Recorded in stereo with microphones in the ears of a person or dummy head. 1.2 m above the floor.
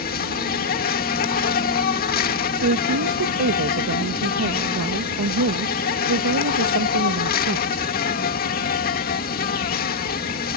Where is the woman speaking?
80° right.